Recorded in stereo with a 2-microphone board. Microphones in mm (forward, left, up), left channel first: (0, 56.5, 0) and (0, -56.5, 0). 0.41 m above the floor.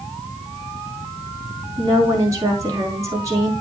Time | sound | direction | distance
1.8 | a woman speaking | 30° right (ahead or behind) | 4.5 m